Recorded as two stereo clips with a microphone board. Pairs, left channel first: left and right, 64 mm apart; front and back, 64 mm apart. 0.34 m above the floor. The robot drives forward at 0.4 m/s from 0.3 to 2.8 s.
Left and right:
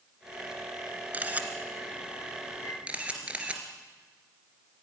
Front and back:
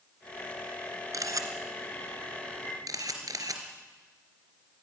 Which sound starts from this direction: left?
A chime, at 2.6 s.